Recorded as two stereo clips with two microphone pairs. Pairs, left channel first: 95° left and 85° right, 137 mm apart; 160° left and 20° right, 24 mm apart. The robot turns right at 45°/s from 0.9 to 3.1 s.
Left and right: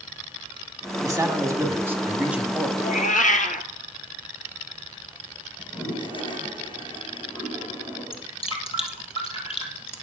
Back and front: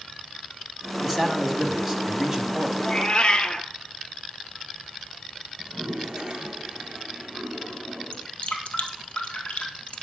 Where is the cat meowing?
100° left, 0.9 m; by 3.7 s 115° left, 0.9 m.